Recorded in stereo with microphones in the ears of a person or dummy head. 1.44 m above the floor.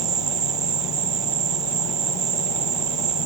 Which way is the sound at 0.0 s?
45° right (ahead or behind).